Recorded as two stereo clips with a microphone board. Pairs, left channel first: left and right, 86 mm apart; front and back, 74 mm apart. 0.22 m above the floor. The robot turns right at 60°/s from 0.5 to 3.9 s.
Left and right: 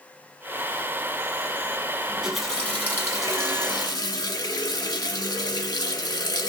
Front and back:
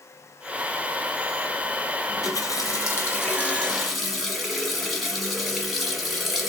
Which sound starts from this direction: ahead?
A running tap, at 2.1 s.